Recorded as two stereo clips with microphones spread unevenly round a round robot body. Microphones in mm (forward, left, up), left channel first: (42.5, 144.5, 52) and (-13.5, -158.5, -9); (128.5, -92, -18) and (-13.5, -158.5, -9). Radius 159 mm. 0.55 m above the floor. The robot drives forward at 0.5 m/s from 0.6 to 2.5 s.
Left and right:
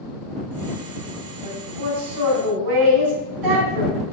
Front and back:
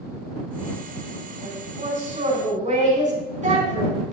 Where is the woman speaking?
105° right, 4.5 m; by 4.1 s 115° right, 5 m.